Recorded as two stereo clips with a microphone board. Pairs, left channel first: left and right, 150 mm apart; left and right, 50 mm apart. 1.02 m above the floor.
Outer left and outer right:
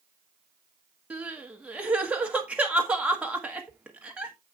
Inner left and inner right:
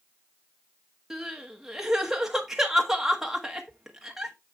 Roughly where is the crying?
Centre.